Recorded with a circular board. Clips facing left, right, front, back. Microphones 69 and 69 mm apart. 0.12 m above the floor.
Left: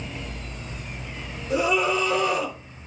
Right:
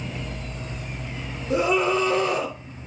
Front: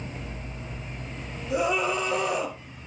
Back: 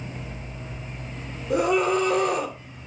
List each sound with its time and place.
1.5 s a scream: 145° right, 3 m